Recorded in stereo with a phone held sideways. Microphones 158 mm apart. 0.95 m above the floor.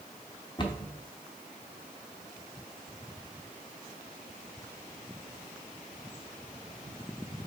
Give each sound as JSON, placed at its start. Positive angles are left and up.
{"t": 0.6, "sound": "a cupboard door", "side_deg": 30, "distance_m": 0.8}